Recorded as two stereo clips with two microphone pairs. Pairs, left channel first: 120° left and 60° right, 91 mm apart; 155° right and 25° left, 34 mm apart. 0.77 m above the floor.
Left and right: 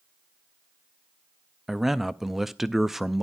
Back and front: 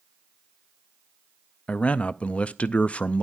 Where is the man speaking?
150° right, 0.5 m.